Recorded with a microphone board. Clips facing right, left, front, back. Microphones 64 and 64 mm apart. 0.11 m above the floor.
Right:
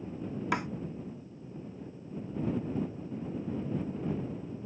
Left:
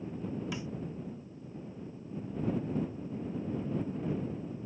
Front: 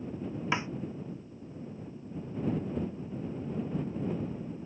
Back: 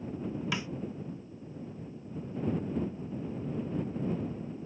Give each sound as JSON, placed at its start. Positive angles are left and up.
{"t": 0.5, "sound": "a snare drum", "azimuth_deg": -60}